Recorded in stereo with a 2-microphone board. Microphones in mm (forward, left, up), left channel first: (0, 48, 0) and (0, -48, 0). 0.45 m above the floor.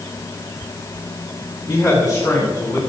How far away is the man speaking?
About 3.5 m.